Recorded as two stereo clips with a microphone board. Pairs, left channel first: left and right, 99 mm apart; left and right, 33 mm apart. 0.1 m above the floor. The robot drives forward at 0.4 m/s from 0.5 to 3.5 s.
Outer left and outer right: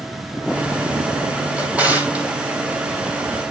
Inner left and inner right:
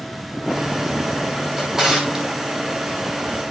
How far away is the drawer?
About 2.5 m.